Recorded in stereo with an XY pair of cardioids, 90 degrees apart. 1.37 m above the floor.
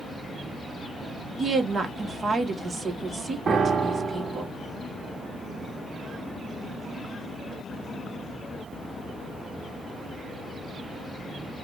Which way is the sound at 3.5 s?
50° right.